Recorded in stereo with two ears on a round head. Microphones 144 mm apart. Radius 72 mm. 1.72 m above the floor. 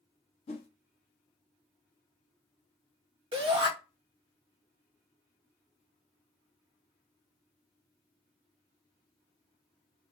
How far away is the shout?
About 1.3 m.